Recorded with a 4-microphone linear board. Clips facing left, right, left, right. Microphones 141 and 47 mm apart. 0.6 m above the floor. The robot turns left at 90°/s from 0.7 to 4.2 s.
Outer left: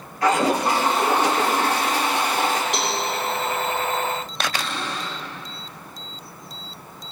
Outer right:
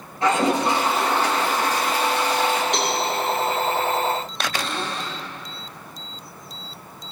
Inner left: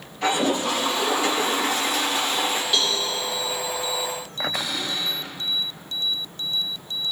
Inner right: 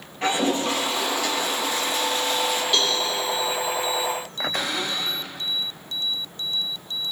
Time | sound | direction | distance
0.2 | a toilet flushing | 155° right | 4.5 m
2.7 | a cowbell | centre (ahead or behind) | 5 m
4.5 | a cupboard door | 55° right (ahead or behind) | 4.5 m